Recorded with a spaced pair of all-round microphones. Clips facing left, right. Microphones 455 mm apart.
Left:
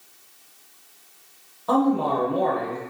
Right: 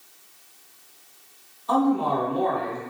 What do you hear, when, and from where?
1.7 s a man speaking: 85° left, 1.5 m